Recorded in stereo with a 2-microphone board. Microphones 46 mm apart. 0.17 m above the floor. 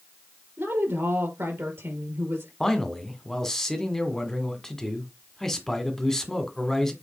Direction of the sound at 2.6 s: 10° left (ahead or behind).